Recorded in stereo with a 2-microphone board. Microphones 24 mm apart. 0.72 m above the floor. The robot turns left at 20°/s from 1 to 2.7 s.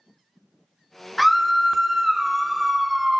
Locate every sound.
1.2 s a scream: straight ahead, 0.6 m; by 3.2 s 30° right, 0.6 m